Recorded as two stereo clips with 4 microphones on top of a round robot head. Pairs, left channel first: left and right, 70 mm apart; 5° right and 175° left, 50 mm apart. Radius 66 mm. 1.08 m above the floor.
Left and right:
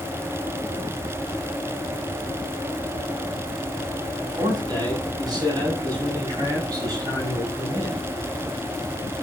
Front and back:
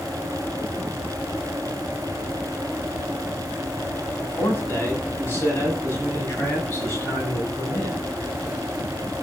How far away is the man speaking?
About 8 m.